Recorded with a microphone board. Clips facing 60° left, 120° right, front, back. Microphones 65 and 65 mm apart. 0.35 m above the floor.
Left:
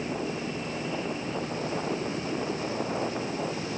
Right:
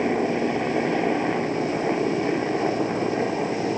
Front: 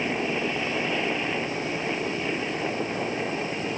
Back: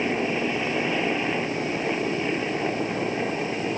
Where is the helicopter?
95° right.